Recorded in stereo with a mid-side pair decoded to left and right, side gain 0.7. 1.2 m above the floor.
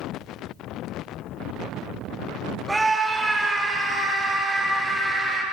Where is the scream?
10° right, 2.5 m.